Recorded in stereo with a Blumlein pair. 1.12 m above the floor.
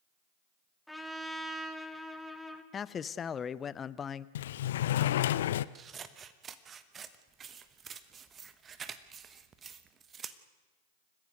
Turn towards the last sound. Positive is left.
turn(degrees=-20)